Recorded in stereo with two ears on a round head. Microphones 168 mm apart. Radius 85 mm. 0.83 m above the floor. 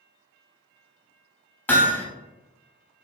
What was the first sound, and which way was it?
Hammering, 10° left (ahead or behind).